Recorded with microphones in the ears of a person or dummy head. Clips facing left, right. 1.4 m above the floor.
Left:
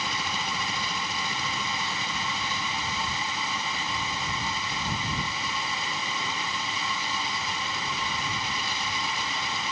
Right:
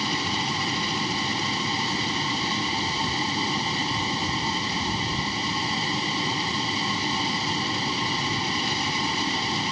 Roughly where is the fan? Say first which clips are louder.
Right 5 dB; right.